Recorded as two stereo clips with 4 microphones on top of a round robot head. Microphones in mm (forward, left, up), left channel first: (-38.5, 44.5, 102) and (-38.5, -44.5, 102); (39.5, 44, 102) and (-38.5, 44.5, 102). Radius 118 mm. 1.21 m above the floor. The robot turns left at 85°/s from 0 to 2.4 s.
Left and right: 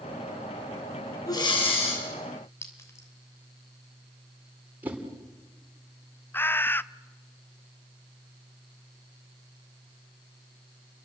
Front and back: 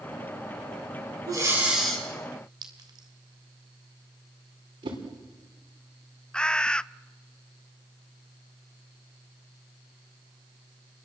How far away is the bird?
About 0.6 m.